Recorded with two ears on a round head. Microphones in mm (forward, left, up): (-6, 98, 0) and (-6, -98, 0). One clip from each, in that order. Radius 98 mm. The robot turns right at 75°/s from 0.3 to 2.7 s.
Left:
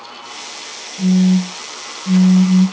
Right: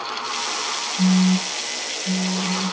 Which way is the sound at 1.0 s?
45° left.